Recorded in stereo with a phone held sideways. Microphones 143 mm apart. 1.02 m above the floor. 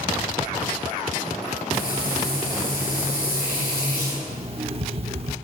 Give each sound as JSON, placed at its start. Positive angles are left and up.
{"t": 1.7, "sound": "frying", "side_deg": 85, "distance_m": 4.0}
{"t": 4.3, "sound": "an alarm clock", "side_deg": -40, "distance_m": 0.7}